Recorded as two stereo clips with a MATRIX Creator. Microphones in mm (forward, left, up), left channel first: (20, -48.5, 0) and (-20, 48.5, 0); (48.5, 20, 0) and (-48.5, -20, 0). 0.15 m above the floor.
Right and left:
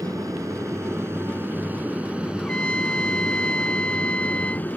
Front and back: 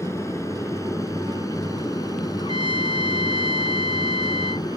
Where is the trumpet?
10° left.